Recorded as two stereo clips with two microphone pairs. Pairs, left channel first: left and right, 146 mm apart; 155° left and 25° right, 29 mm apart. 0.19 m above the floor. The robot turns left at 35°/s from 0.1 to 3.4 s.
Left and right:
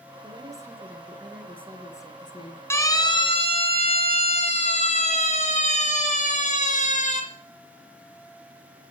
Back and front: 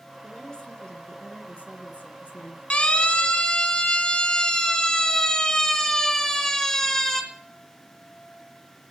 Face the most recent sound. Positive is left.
turn(degrees=80)